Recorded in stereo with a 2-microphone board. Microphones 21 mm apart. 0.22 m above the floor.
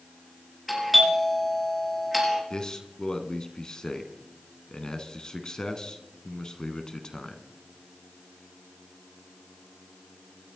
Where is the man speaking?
35° left (ahead or behind), 1.9 m.